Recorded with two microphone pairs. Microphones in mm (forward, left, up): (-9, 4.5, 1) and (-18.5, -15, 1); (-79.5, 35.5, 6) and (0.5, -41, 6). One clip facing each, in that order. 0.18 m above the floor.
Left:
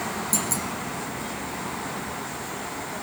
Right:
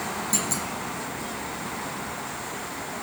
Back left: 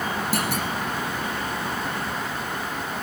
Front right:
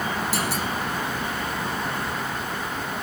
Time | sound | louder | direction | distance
0.3 | a clunk | right 1 dB, back left 1 dB | 170° left | 3 m